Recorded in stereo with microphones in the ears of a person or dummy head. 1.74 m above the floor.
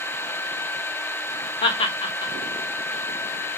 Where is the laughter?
30° left (ahead or behind), 0.5 m.